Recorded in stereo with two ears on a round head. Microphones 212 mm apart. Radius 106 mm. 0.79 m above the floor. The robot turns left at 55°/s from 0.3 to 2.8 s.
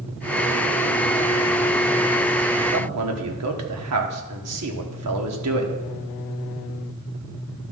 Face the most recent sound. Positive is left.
turn(degrees=-75)  # may be behind; listen again after turning